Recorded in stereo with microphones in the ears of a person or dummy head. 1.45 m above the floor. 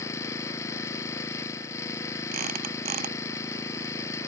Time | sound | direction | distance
0.0 | an engine running | 25° left (ahead or behind) | ?
2.3 | a squeak | 50° right (ahead or behind) | ?